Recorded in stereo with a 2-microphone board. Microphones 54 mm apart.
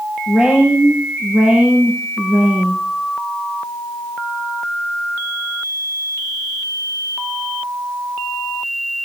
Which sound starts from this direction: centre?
A woman speaking, at 0.3 s.